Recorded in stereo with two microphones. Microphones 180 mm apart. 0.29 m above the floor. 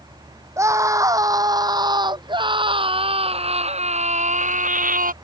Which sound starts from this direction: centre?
A scream, at 0.6 s.